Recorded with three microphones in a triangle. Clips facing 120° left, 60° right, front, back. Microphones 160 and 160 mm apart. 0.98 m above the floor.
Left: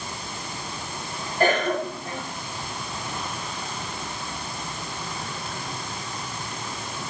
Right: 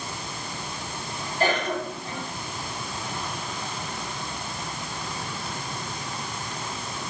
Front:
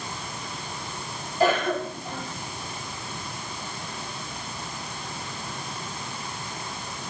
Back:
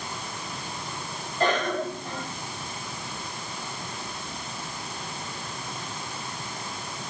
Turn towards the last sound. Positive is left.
turn(degrees=85)